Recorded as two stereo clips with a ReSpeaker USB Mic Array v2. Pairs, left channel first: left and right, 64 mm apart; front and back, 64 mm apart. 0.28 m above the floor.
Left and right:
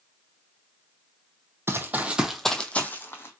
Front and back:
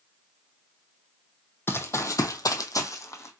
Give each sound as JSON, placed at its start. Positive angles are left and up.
{"t": 1.7, "sound": "running footsteps", "azimuth_deg": -50, "distance_m": 0.6}